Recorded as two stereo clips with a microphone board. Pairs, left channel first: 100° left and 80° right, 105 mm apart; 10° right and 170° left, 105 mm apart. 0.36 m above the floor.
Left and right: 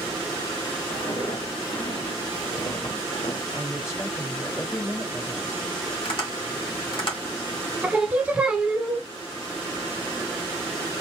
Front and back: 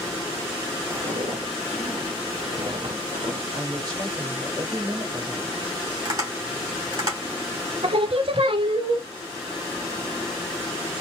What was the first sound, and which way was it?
Footsteps, 155° left.